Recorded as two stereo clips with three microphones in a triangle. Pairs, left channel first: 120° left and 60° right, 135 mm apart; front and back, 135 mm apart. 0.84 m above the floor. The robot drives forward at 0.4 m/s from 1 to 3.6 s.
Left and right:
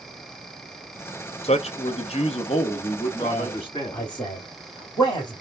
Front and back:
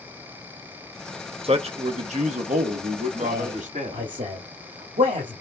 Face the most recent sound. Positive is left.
turn(degrees=180)